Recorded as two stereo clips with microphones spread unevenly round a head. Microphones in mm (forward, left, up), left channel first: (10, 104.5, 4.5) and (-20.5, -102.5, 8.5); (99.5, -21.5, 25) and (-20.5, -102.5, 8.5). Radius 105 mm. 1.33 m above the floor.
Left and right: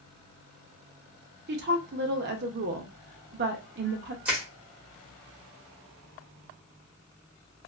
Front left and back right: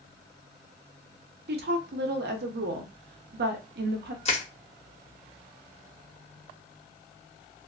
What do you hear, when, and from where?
1.5 s a woman speaking: 140° right, 0.7 m
4.2 s crushing: 15° right, 1.2 m